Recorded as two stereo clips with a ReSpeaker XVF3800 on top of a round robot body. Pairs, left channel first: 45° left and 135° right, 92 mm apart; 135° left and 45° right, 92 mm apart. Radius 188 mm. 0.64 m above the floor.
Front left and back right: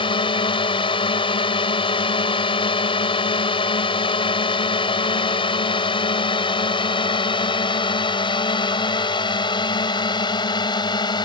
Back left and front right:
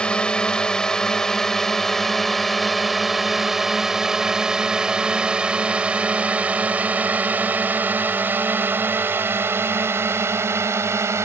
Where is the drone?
55° left; by 11.2 s 15° left.